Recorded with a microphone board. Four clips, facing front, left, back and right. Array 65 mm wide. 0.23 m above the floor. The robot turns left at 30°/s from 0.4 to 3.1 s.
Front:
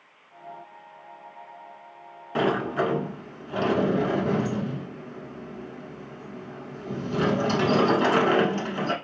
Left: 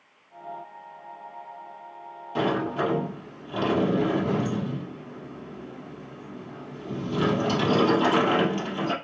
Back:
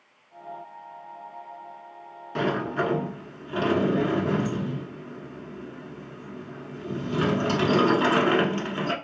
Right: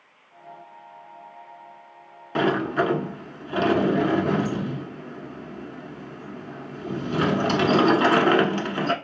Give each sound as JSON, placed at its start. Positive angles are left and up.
{"t": 2.4, "sound": "a sliding door", "azimuth_deg": -70, "distance_m": 0.7}